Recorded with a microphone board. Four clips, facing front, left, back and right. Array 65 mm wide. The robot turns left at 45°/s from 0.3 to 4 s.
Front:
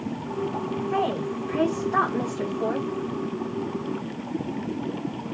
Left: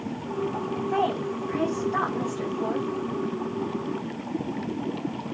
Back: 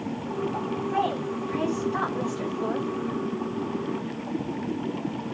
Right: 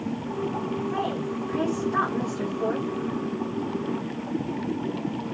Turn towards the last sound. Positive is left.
turn(degrees=-90)